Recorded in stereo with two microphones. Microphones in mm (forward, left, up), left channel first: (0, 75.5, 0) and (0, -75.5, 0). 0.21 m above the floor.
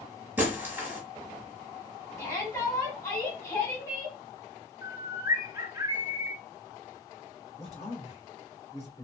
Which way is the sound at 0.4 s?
15° right (ahead or behind).